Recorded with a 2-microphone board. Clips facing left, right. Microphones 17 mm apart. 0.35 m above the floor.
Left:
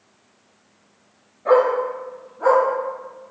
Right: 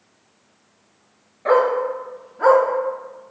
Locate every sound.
1.4 s a dog barking: 65° right (ahead or behind), 1.3 m; by 2.6 s 80° right, 1.0 m